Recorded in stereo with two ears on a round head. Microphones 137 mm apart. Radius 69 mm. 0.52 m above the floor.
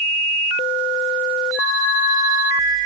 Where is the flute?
85° left, 6 m.